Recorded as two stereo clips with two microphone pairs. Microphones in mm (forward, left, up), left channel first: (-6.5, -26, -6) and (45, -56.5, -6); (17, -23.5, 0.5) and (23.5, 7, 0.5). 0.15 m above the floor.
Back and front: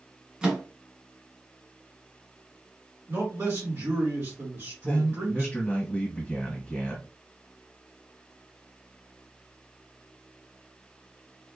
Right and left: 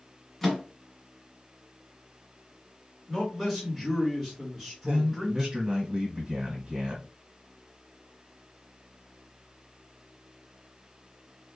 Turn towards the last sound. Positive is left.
turn(degrees=105)